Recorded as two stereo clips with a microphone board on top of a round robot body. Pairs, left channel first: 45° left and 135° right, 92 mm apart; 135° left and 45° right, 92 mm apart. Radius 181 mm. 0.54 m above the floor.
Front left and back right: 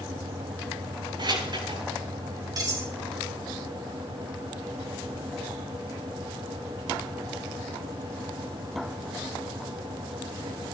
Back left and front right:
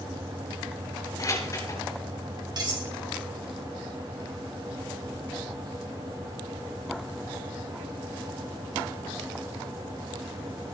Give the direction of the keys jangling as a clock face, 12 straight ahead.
6 o'clock.